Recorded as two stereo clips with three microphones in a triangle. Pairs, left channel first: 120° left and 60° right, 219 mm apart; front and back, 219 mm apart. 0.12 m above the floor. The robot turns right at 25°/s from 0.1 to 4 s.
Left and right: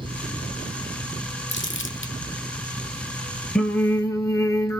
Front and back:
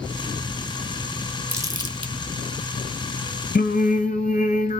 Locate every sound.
1.5 s crumpling: 100° left, 1.1 m; by 2.1 s 120° left, 1.1 m
3.5 s singing: 35° left, 1.1 m; by 4.8 s 45° left, 1.1 m